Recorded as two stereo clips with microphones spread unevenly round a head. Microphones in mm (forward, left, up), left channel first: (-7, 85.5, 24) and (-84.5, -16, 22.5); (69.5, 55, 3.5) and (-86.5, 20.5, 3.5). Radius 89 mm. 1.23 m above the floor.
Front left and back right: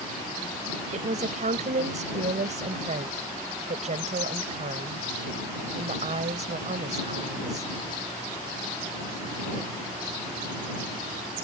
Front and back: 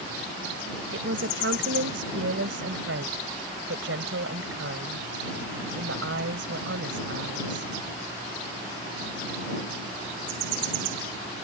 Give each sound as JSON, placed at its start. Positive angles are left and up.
{"t": 0.9, "sound": "a woman speaking", "azimuth_deg": -155}